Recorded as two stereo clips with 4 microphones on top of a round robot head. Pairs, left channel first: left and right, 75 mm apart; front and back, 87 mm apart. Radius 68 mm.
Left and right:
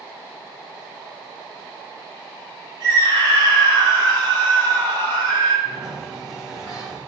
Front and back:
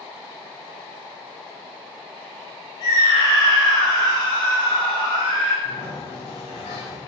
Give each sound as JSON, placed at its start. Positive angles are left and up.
{"t": 2.8, "sound": "a scream", "azimuth_deg": -55, "distance_m": 3.5}
{"t": 5.7, "sound": "a sliding door", "azimuth_deg": -15, "distance_m": 4.5}